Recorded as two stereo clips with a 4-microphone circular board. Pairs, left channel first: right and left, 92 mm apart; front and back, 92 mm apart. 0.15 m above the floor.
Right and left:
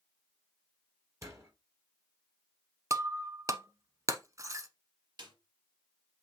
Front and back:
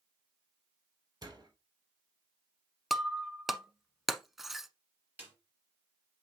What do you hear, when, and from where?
1.2 s a door slam: 140° left, 2.5 m
2.9 s breaking glass: 95° left, 0.8 m
5.2 s a snare drum: 115° left, 3.5 m